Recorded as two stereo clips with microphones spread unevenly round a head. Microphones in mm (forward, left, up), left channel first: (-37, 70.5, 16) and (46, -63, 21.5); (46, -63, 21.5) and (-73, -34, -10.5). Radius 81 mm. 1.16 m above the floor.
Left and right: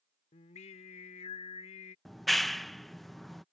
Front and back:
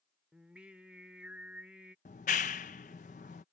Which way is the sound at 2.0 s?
35° left.